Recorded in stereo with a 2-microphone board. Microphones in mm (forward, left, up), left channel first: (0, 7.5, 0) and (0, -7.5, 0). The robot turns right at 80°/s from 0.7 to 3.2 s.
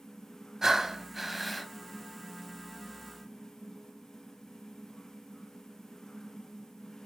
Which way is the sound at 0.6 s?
60° right.